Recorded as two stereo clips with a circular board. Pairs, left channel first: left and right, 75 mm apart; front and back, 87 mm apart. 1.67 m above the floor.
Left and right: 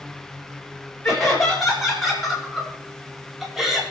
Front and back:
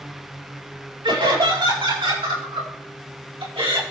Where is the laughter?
175° left, 9 m; by 3.8 s 175° right, 5 m.